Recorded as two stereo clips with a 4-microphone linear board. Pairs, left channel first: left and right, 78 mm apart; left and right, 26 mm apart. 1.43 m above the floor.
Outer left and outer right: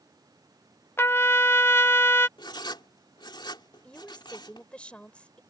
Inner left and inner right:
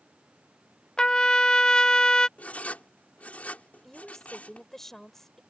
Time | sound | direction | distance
1.0 | a trumpet | 30° left (ahead or behind) | ?
2.4 | writing | 70° left (ahead or behind) | ?
3.8 | a woman speaking | 15° left (ahead or behind) | ?